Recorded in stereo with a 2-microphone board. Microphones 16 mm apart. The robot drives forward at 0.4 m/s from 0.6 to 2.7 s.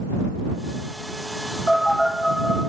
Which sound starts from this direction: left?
A phone buzzing, at 1.7 s.